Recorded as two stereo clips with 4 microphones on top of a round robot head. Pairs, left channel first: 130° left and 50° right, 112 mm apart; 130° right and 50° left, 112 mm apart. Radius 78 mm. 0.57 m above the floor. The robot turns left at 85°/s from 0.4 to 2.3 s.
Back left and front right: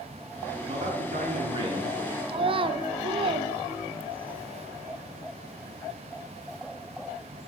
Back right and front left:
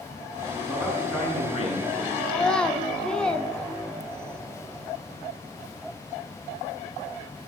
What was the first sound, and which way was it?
A man speaking, 25° right.